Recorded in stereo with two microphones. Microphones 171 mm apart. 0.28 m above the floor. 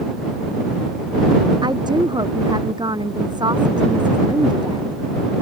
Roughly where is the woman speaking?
Right.